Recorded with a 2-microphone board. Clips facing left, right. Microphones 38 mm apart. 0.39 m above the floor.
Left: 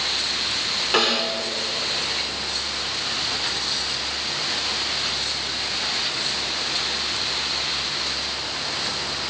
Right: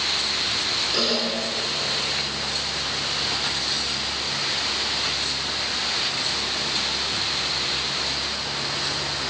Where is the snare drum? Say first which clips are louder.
Left 6 dB; 75° left (ahead or behind), 4 m.